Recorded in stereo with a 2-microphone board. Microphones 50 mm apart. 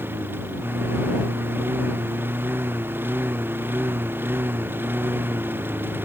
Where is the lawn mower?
50° right (ahead or behind); by 6.0 s 45° right (ahead or behind).